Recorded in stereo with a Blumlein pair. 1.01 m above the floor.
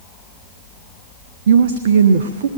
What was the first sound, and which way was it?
A woman speaking, 60° right.